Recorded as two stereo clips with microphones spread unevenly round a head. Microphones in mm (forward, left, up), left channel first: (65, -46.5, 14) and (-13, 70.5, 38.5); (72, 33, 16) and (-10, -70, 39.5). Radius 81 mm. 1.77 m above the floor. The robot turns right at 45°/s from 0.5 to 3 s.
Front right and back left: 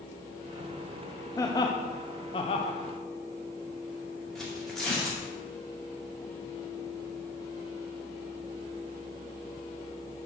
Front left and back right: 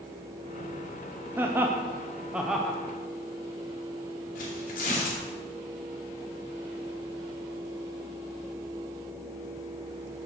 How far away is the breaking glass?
I don't hear breaking glass.